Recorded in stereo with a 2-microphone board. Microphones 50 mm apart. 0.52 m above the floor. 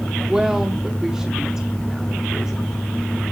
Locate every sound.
0.3 s a woman speaking: 10° right (ahead or behind), 1.1 m